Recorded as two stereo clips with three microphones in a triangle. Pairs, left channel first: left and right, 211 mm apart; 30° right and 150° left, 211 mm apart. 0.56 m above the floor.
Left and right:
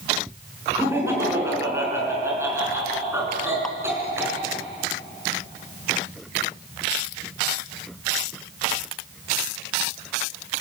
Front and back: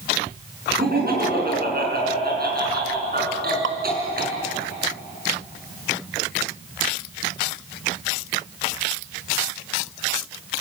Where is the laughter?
170° right, 5.5 m.